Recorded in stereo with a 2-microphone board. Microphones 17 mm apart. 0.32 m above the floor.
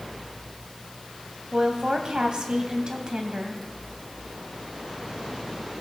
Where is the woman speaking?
50° right (ahead or behind), 2 m.